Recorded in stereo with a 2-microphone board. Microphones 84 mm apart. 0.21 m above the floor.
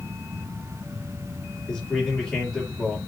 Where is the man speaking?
10° left (ahead or behind), 5 m.